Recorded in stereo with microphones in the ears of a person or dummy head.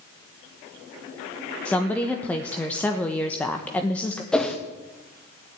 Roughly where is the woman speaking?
Centre.